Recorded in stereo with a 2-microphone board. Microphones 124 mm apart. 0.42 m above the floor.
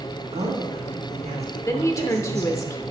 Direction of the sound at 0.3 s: 65° right (ahead or behind).